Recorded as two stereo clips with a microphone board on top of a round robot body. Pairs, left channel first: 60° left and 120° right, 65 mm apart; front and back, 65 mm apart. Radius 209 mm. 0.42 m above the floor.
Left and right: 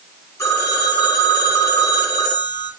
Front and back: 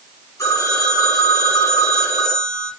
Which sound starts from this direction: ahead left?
A phone ringing, at 0.4 s.